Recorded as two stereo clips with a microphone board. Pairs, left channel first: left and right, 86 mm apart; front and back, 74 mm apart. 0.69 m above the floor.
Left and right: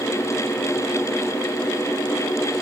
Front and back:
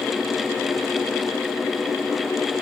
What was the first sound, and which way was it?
Only background noise.